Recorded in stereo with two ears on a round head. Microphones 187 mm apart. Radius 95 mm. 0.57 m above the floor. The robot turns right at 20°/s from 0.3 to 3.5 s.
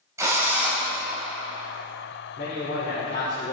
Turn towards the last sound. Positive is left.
turn(degrees=60)  # may be behind; listen again after turning